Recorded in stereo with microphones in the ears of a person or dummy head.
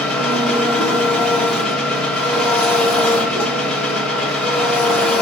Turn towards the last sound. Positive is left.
turn(degrees=0)  # may be behind; listen again after turning